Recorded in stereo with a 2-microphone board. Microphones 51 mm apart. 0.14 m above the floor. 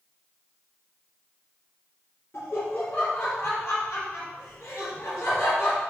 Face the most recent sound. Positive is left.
turn(degrees=50)  # may be behind; listen again after turning